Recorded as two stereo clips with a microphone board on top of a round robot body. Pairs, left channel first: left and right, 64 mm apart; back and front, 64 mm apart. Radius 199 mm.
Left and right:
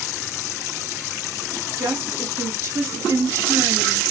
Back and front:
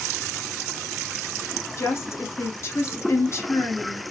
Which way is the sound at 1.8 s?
140° right.